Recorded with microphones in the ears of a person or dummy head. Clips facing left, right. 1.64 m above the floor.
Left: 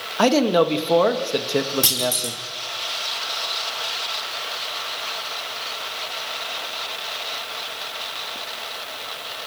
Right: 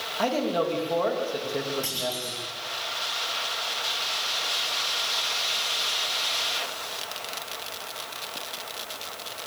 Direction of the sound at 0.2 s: 80° left.